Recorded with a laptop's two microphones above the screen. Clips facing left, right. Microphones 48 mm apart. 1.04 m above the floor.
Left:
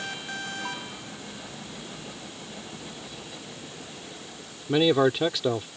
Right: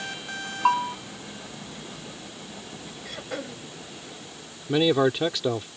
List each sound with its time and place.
0.7 s a bell: 55° right (ahead or behind)
3.0 s throat clearing: 65° right (ahead or behind)
4.7 s a man speaking: 5° left (ahead or behind)